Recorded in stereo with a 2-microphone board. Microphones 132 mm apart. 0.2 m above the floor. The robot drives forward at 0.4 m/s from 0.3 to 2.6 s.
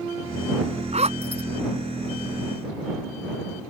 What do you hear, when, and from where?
0.9 s a zipper: 55° right (ahead or behind)